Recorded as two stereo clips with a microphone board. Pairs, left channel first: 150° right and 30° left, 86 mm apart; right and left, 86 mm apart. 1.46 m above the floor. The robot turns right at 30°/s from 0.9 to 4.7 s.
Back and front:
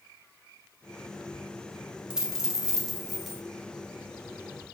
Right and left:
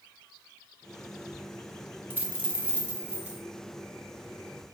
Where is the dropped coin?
90° left, 0.8 m; by 3.4 s 130° left, 0.8 m.